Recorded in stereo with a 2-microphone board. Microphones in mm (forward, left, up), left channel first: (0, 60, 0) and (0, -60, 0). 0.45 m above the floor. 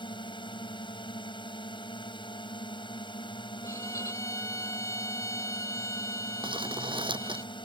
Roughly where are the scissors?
I don't hear scissors.